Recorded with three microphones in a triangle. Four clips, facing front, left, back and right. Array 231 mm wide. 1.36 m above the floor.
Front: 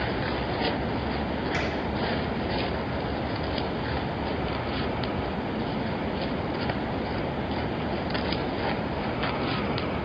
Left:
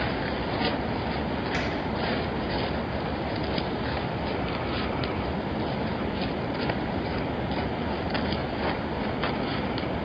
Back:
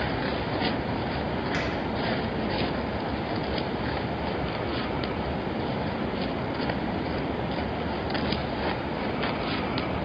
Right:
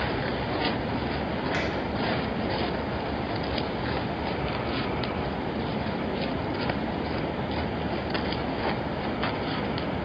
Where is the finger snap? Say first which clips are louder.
Right 1 dB, even; 125° right, 3 m.